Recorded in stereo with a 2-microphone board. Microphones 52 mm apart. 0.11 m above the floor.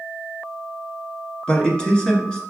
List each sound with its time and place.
1.5 s a man speaking: 20° left (ahead or behind), 1.2 m